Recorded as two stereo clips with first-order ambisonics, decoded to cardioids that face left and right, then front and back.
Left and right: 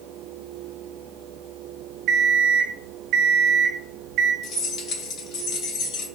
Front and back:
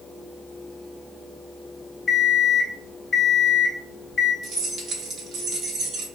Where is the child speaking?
No child speaking in this recording.